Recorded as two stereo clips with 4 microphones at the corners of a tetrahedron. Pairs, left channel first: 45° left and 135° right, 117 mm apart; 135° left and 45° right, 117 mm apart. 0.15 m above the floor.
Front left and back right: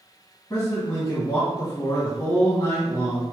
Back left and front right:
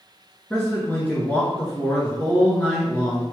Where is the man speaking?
70° left, 1.2 m.